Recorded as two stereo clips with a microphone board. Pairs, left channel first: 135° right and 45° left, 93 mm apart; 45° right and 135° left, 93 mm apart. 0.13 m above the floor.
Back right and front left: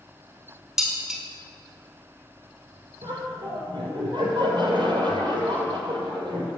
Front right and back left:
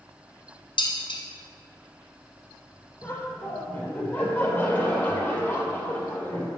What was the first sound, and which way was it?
Dishes clattering, 40° right.